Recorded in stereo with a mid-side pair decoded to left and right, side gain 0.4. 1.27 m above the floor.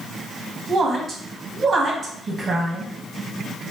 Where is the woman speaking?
50° right, 1.6 m.